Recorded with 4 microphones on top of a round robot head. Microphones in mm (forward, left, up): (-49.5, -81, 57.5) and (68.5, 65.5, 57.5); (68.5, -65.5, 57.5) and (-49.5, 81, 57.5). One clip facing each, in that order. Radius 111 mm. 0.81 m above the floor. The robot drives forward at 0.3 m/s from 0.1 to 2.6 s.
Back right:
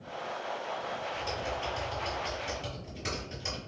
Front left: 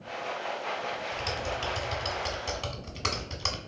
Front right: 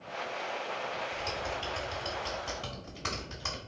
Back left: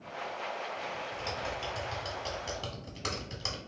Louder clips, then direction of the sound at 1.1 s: Front left 1 dB, front right 1 dB; 45° left.